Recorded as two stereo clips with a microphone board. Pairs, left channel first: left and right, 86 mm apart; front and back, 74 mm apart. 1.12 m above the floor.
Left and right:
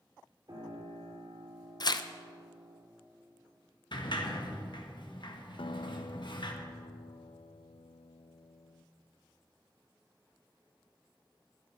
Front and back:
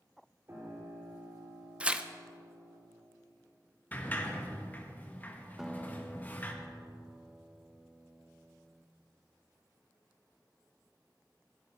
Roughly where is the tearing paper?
Left.